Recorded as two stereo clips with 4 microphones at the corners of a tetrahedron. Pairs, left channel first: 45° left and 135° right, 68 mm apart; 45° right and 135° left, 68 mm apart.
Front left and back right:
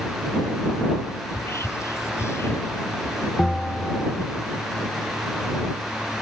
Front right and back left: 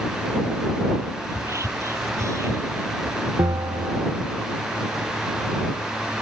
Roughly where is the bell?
Behind left.